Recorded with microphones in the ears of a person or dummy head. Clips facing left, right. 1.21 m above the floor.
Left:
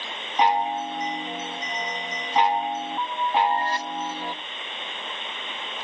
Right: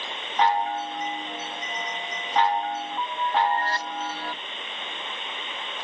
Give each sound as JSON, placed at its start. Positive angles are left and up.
{"t": 0.4, "sound": "a chime", "side_deg": 10, "distance_m": 0.6}